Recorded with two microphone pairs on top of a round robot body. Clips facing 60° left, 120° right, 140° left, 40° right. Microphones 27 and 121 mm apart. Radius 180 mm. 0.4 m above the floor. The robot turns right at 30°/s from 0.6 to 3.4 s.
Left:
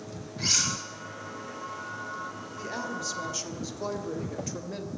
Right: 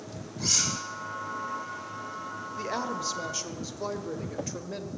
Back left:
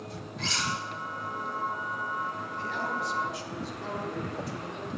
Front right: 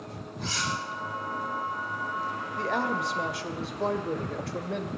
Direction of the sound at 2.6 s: 60° right.